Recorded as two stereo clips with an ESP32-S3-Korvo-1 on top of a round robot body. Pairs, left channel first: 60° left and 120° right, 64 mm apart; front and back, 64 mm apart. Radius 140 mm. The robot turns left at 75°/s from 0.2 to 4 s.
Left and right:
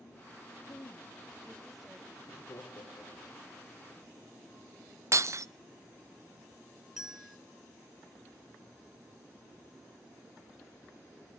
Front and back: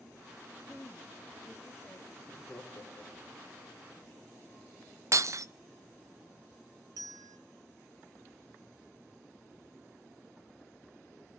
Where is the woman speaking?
55° left, 1.2 m; by 2.0 s 50° right, 1.2 m.